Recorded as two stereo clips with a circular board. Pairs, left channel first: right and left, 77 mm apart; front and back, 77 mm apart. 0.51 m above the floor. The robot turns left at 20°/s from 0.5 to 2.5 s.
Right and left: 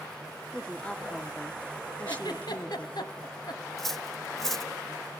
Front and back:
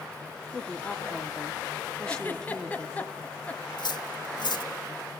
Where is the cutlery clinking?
5° right, 1.3 m.